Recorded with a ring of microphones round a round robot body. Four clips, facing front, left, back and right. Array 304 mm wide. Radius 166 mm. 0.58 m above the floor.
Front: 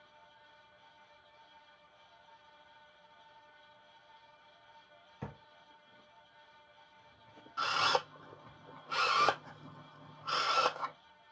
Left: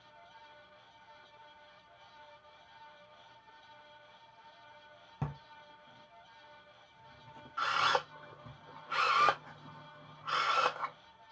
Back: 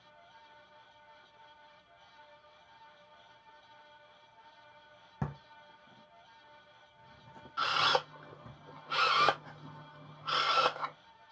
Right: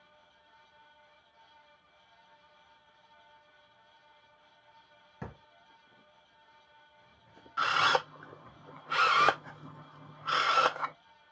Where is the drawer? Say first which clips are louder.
Left 4 dB, back 6 dB; 160° left, 1.0 m.